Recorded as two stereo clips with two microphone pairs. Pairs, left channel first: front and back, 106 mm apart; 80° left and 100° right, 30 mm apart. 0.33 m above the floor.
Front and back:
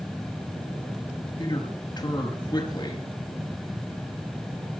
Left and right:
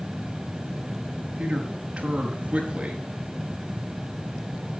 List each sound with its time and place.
1.4 s a man speaking: 45° right, 5.5 m